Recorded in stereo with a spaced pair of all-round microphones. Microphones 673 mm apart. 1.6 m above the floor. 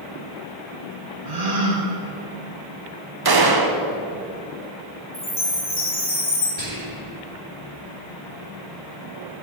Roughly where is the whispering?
Left.